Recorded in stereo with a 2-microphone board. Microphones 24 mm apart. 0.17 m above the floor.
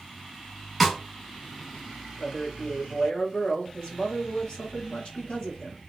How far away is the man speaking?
About 2 m.